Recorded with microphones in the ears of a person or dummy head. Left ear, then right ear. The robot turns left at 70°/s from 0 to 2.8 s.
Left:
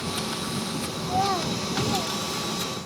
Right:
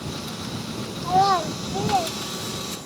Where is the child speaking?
60° right (ahead or behind); by 2.9 s 5° left (ahead or behind).